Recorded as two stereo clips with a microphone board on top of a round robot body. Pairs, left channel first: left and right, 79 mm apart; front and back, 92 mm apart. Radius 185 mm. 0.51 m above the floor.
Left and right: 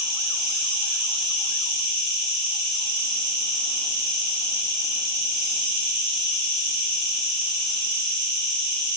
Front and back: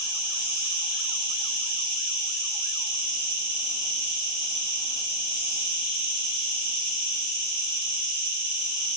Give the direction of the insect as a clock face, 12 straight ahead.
6 o'clock.